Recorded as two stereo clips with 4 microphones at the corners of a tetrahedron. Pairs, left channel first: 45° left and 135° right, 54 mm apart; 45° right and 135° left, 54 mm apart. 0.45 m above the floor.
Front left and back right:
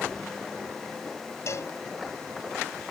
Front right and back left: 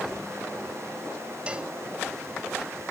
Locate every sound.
1.5 s a cowbell: 70° left